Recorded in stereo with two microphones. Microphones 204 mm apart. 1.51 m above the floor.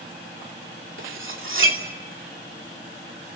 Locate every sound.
1.0 s cutlery clinking: 75° right (ahead or behind), 2.5 m